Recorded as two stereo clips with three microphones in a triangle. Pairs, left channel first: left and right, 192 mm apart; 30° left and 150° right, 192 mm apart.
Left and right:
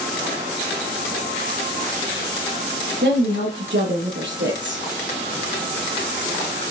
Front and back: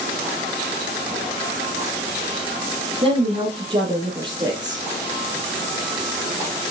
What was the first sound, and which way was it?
A woman speaking, 100° right.